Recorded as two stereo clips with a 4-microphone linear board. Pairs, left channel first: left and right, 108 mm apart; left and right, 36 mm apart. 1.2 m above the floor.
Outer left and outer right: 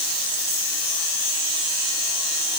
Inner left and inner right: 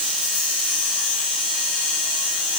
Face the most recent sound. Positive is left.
No sound to turn to.